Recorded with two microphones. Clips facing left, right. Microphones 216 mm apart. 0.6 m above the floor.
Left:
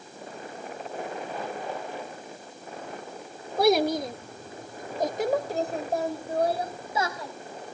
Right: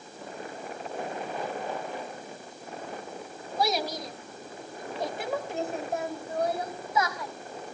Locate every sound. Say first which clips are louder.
3.6 s a child speaking: left 8 dB; 65° left (ahead or behind), 1.5 m; by 7.3 s 30° left (ahead or behind), 3.5 m